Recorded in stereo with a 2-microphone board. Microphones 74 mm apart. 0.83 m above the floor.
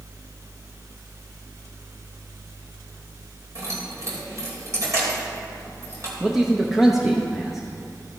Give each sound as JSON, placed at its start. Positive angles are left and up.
{"t": 3.5, "sound": "keys jangling", "side_deg": -45, "distance_m": 2.5}
{"t": 6.2, "sound": "a man speaking", "side_deg": -5, "distance_m": 0.7}